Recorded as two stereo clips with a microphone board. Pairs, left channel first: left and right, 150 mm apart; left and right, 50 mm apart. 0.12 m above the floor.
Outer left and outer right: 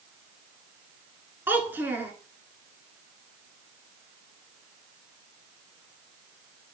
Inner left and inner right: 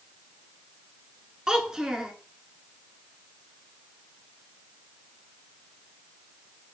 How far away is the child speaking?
About 0.8 m.